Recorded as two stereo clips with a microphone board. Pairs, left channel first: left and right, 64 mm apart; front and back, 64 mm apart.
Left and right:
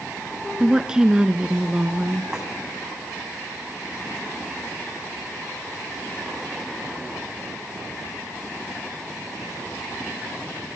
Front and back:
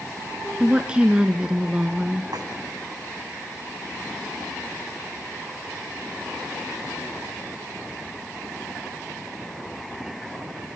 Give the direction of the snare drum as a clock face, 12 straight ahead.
6 o'clock.